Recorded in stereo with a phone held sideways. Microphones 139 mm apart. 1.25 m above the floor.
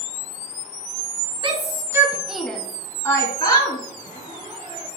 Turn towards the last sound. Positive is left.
turn(degrees=-40)  # may be behind; listen again after turning